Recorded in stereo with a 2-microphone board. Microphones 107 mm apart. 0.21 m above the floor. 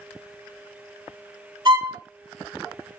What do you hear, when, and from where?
1.6 s a violin: 40° right (ahead or behind), 1.8 m